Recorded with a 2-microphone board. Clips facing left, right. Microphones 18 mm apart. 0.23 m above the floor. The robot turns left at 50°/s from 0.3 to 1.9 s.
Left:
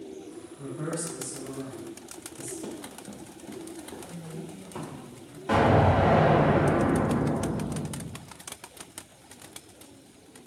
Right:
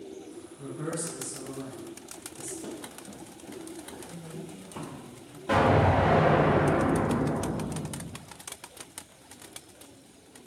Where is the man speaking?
20° left (ahead or behind), 1.0 m; by 2.5 s 5° left (ahead or behind), 1.0 m.